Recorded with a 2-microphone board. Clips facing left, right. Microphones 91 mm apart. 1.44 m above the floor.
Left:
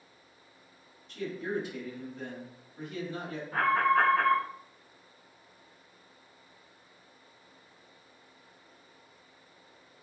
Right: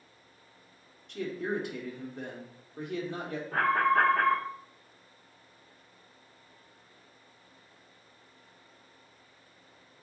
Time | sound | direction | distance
1.1 | a man speaking | 60° right (ahead or behind) | 0.9 m
3.5 | an alarm | 75° right (ahead or behind) | 1.5 m